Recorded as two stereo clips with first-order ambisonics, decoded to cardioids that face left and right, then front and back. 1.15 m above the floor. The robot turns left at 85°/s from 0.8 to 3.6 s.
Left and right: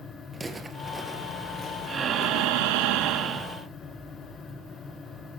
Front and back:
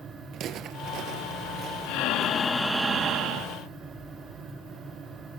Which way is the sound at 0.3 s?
165° right.